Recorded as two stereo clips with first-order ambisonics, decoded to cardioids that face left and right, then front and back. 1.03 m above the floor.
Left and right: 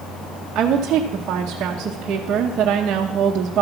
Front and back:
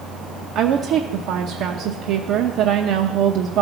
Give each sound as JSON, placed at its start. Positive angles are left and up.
{"t": 0.6, "sound": "a woman speaking", "azimuth_deg": -145, "distance_m": 0.8}